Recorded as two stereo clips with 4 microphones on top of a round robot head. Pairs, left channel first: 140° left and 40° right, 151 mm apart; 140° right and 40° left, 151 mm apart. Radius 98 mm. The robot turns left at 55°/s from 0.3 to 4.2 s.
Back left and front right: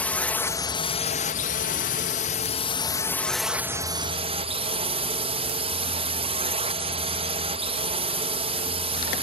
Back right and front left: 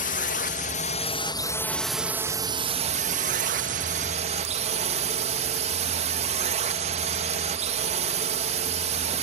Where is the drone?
140° right; by 9.2 s 5° left.